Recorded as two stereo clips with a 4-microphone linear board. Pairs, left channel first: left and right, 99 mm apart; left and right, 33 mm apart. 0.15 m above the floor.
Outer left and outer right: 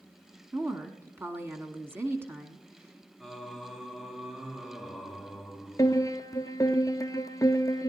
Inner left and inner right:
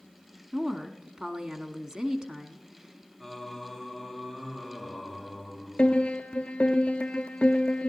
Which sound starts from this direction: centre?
Singing, at 3.2 s.